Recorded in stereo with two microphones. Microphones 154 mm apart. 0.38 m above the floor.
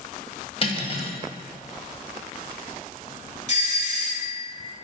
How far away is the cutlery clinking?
About 1.2 m.